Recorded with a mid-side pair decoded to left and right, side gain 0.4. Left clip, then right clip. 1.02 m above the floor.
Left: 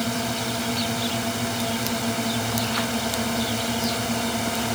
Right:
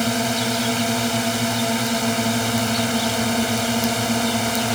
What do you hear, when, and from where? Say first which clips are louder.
0.0 s a drone: right 5 dB; 40° right; by 4.8 s 35° right